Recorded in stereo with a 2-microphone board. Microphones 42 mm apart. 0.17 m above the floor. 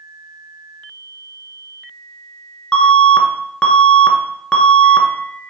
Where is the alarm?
25° left (ahead or behind), 1.4 m.